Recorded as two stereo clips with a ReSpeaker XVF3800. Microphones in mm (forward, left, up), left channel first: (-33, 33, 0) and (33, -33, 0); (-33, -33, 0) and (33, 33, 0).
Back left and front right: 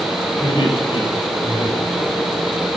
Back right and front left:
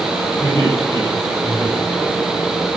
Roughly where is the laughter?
Behind.